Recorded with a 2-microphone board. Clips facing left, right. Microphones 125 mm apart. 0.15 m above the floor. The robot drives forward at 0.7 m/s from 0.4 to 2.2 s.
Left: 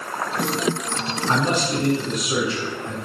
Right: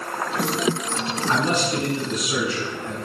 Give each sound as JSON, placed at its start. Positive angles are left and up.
{"t": 1.3, "sound": "a man speaking", "side_deg": 30, "distance_m": 1.8}